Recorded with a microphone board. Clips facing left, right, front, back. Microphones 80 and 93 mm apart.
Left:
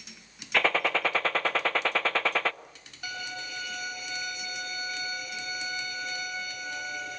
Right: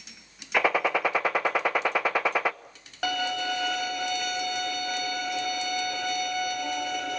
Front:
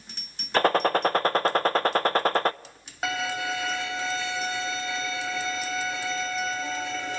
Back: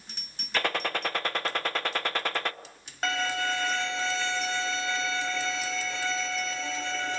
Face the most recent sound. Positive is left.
turn(degrees=-85)